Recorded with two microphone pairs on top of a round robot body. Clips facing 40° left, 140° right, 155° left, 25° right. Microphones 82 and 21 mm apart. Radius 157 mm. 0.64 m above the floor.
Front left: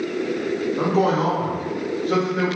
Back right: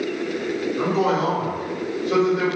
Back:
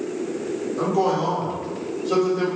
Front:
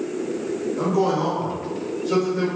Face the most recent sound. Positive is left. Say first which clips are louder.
# front left 1 dB, even
turn(degrees=65)